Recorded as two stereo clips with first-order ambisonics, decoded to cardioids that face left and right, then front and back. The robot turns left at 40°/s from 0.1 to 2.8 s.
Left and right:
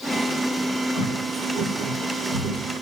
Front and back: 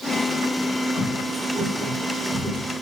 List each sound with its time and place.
0.9 s footsteps: 70° right, 1.6 m; by 2.7 s 95° right, 1.5 m